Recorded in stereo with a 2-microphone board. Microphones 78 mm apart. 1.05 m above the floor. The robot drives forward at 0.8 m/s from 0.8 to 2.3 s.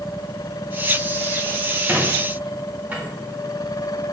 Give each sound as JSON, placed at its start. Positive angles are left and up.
{"t": 1.9, "sound": "a squeak", "side_deg": -30, "distance_m": 0.7}